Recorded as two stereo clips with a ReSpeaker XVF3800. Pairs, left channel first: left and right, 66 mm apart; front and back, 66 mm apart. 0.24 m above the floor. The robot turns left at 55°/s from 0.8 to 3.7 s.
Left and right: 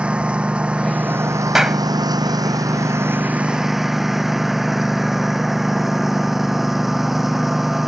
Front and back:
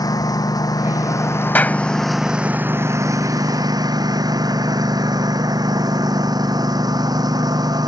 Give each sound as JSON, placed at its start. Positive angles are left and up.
{"t": 0.0, "sound": "a lawn mower", "azimuth_deg": -15}
{"t": 1.6, "sound": "a clap", "azimuth_deg": -15}